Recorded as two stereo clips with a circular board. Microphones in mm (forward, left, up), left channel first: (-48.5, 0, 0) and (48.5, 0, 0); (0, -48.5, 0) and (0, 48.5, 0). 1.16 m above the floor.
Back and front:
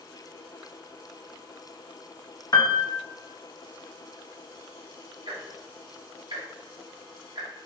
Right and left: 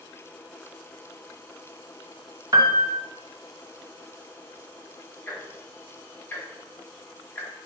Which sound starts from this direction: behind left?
A piano, at 2.5 s.